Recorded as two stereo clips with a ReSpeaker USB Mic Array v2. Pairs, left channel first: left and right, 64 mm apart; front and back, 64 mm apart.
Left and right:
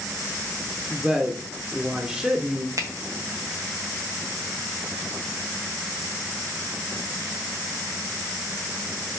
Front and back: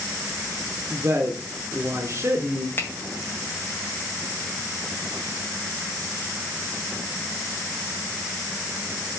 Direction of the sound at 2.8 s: 55° right.